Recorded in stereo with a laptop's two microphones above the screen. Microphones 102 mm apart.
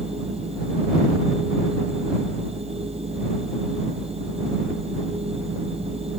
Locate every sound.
0.0 s a machine running: 80° right